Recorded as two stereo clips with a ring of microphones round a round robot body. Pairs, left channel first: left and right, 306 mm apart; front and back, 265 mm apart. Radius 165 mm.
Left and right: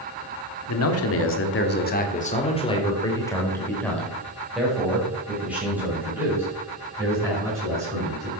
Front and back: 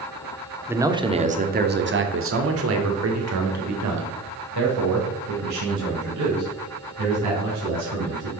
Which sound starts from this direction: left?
A man speaking, at 0.7 s.